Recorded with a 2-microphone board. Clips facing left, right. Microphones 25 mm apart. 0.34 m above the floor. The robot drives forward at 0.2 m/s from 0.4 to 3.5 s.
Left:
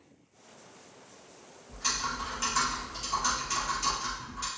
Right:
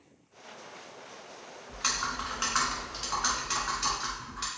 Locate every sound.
1.7 s typing on a keyboard: 50° right (ahead or behind), 1.1 m; by 4.5 s 35° right (ahead or behind), 1.4 m